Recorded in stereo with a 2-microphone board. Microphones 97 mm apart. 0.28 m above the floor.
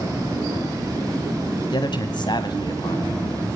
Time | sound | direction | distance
1.7 | a man speaking | 50° left (ahead or behind) | 1.4 m